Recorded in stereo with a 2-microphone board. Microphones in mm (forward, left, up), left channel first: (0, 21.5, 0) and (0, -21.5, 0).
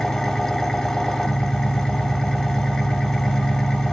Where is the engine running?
10° left (ahead or behind), 0.7 m.